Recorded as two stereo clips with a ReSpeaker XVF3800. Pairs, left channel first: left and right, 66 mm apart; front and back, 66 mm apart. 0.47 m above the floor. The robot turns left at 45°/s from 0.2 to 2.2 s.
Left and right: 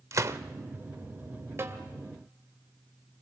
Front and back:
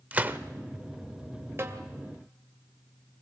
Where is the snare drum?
135° right, 2 m; by 1.8 s 145° right, 2 m.